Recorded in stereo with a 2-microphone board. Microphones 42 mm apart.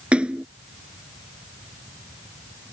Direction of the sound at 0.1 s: 25° right (ahead or behind).